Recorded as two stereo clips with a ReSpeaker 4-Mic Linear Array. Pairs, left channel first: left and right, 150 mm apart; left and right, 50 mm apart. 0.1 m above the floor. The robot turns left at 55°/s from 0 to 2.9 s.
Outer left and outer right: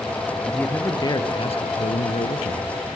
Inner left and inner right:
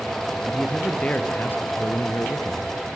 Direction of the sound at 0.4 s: Straight behind.